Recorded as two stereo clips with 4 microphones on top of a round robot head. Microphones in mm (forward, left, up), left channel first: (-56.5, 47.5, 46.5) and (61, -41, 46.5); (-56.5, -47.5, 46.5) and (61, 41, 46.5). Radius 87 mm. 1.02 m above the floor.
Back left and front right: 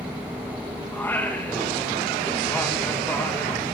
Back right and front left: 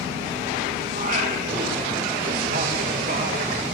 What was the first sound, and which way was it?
Singing, 65° left.